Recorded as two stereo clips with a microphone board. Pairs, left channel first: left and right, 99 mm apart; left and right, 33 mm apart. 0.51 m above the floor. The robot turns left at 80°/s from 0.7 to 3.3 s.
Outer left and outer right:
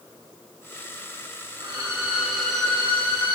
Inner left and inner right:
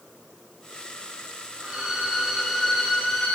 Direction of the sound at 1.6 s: 110° right.